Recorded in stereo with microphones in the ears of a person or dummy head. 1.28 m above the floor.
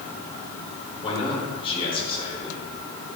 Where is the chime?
I don't hear a chime.